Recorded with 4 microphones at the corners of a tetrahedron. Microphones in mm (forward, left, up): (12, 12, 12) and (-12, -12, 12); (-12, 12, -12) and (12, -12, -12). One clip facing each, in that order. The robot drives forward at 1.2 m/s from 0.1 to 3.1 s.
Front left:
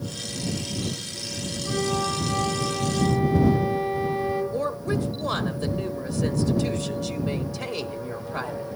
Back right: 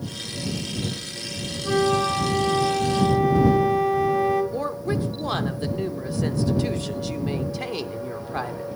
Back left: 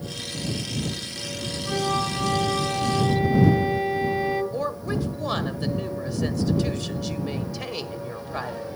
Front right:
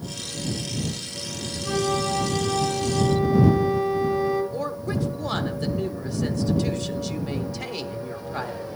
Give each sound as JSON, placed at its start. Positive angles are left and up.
{"t": 1.6, "sound": "a flute", "azimuth_deg": -120, "distance_m": 1.4}
{"t": 4.5, "sound": "a woman speaking", "azimuth_deg": -135, "distance_m": 1.2}